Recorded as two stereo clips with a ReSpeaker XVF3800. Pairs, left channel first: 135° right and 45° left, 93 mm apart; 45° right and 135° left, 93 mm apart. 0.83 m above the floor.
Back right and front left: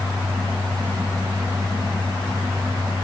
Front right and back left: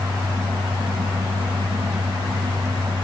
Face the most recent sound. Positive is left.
No sound to turn to.